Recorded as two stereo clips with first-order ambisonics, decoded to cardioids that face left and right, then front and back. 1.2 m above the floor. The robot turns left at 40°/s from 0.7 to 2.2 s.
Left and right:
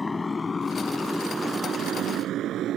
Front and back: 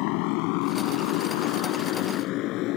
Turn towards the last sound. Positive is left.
turn(degrees=-35)